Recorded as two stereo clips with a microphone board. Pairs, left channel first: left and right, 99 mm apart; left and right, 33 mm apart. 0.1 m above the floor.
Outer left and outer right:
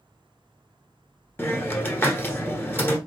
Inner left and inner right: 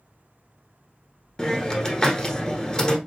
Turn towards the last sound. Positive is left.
turn(degrees=20)  # may be behind; listen again after turning